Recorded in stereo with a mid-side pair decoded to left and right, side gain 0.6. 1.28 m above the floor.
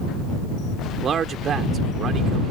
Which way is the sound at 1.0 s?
45° right.